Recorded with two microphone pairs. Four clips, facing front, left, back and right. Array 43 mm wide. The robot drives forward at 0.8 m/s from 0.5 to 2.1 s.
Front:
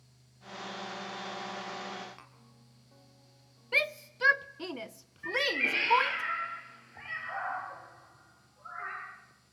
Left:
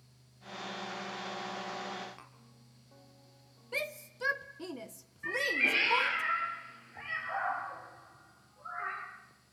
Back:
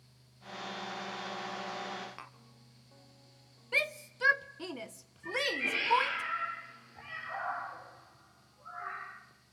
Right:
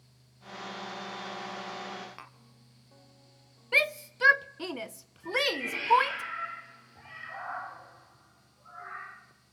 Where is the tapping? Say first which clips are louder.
Right 6 dB, back 6 dB; 135° right, 1.2 m.